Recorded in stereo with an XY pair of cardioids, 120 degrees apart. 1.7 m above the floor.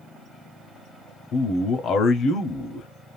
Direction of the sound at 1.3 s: 55° left.